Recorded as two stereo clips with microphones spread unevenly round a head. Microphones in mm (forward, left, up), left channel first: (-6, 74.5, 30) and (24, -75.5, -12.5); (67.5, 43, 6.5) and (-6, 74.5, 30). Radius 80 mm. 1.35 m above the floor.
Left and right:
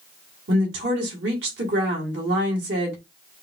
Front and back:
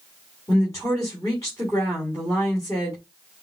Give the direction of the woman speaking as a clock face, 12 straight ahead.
3 o'clock.